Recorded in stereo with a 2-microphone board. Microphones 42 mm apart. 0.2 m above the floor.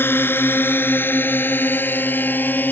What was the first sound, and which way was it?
A drone, 60° left (ahead or behind).